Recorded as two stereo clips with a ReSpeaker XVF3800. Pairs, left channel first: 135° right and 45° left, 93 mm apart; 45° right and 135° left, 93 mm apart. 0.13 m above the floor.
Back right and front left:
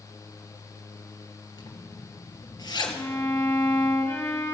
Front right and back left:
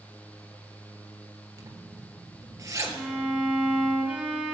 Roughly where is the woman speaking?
I don't hear a woman speaking.